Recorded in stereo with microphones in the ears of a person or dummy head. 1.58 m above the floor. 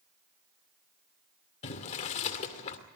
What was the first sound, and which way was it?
Boiling, 40° left (ahead or behind).